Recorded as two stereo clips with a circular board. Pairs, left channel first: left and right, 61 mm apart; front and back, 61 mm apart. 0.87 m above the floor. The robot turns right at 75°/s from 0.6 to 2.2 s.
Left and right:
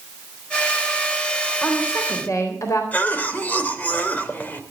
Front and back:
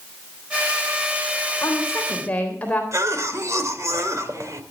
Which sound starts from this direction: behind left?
A cough, at 2.9 s.